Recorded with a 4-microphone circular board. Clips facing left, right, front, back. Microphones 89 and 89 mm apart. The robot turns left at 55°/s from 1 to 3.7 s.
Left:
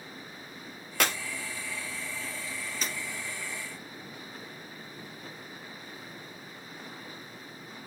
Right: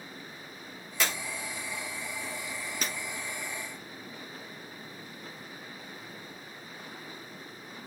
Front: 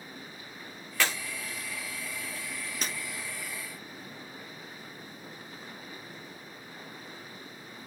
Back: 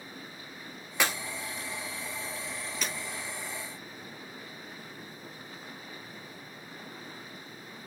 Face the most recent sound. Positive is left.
turn(degrees=-95)